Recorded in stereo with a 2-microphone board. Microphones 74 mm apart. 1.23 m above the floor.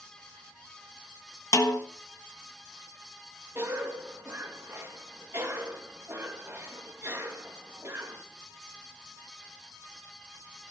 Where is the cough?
35° right (ahead or behind), 2 m.